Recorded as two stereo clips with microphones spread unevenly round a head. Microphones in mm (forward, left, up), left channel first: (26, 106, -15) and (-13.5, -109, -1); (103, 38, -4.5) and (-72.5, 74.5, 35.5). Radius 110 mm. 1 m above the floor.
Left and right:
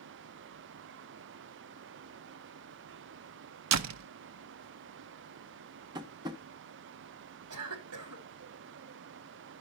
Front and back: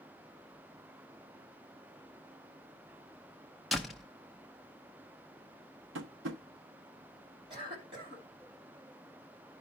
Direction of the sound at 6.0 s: 170° right.